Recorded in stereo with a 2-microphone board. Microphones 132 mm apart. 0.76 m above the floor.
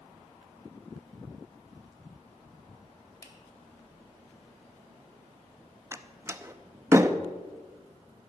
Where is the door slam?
20° right (ahead or behind), 0.7 m.